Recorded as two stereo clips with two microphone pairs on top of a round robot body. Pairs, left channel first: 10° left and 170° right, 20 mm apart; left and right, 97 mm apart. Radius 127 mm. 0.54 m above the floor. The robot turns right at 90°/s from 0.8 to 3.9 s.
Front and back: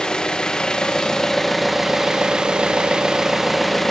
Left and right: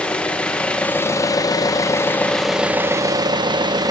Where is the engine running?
25° left, 0.9 m; by 3.9 s 55° right, 0.9 m.